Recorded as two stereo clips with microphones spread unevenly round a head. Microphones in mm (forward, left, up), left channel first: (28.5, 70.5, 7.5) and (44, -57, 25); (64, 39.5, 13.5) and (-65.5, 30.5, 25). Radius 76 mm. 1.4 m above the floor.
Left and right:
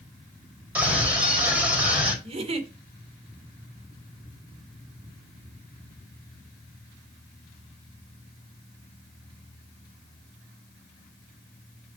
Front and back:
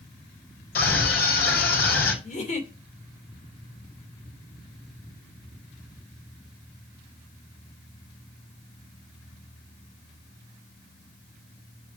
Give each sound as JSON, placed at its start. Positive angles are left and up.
{"t": 0.8, "sound": "a scream", "azimuth_deg": -5, "distance_m": 5.5}
{"t": 2.2, "sound": "a giggle", "azimuth_deg": -45, "distance_m": 2.5}